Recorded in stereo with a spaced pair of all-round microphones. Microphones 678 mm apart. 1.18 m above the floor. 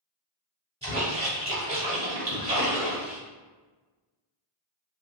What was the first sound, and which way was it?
A splash, 10° right (ahead or behind).